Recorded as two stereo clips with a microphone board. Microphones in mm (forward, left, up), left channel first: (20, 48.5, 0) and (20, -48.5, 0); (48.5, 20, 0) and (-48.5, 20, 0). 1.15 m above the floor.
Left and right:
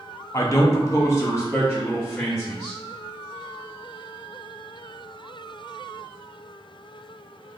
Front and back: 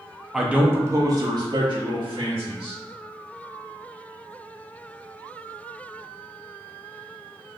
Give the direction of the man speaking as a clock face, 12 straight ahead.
9 o'clock.